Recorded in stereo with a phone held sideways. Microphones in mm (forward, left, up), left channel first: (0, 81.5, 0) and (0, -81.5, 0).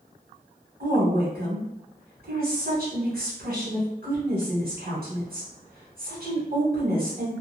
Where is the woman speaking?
65° right (ahead or behind), 1.0 m.